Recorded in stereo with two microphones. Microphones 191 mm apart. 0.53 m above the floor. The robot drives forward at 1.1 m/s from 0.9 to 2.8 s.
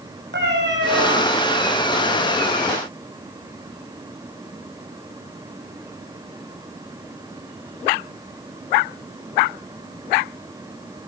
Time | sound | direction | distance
0.3 | a cat meowing | 65° right (ahead or behind) | 4.5 m